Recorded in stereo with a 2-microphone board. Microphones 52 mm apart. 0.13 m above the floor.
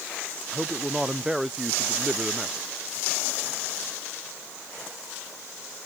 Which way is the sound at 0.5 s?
5° right (ahead or behind).